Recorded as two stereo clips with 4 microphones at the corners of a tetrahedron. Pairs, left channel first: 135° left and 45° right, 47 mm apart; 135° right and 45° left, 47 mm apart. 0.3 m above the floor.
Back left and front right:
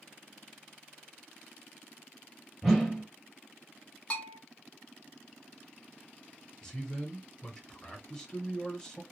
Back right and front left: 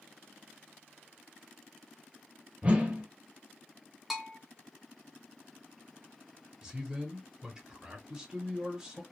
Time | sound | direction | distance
2.6 | a whoosh | 40° left | 0.8 m
4.1 | a bell | 130° left | 0.6 m
6.6 | a man speaking | 90° left | 0.9 m